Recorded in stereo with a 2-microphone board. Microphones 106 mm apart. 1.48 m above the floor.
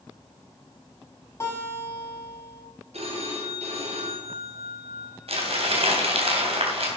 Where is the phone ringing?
80° right, 3.5 m.